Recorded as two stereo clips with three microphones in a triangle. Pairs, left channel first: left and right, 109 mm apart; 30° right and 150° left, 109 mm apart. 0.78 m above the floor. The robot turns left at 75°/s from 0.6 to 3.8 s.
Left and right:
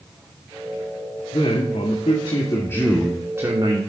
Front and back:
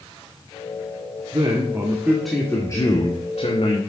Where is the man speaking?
130° left, 2 m; by 3.8 s 55° right, 2 m.